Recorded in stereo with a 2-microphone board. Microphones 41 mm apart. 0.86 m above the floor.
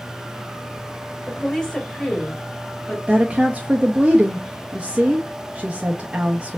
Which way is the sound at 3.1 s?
25° right (ahead or behind).